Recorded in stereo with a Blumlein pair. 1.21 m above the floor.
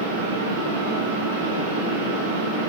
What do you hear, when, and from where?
0.0 s a fan: 70° right, 3 m